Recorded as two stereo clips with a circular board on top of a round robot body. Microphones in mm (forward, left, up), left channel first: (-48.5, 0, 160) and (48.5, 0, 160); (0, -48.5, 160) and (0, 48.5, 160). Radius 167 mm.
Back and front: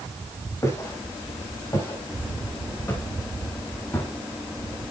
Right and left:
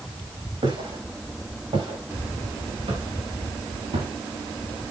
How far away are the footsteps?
About 8 m.